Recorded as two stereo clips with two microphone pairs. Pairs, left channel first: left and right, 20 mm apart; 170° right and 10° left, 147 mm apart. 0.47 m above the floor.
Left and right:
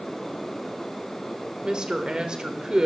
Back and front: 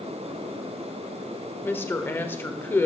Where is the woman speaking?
100° right, 1.3 m.